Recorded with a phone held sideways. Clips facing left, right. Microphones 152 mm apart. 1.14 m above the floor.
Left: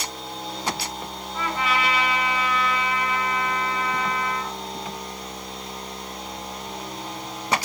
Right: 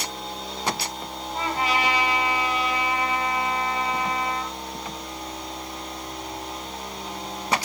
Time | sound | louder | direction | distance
1.3 | a trumpet | even | 35° right (ahead or behind) | 9 m